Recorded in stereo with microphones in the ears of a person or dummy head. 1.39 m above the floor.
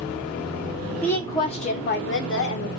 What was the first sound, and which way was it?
A woman speaking, 5° left (ahead or behind).